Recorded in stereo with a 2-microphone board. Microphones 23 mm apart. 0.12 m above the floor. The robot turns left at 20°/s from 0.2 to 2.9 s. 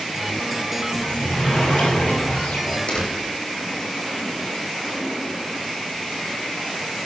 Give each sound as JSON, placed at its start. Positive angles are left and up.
{"t": 0.9, "sound": "a sliding door", "azimuth_deg": 130, "distance_m": 8.0}
{"t": 2.9, "sound": "a door slam", "side_deg": 50, "distance_m": 6.0}